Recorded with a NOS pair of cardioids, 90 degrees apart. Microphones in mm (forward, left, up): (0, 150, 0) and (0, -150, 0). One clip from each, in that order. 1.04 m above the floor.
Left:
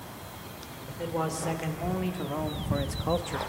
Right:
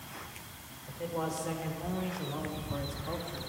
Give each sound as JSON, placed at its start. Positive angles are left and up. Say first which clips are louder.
{"t": 0.9, "sound": "a man speaking", "louder": "left 4 dB", "azimuth_deg": 35, "distance_m": 3.5}